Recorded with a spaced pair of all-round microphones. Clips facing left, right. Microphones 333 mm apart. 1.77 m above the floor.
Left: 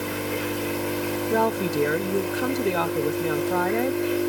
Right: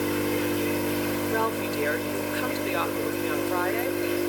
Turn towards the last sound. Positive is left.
turn(degrees=55)  # may be behind; listen again after turning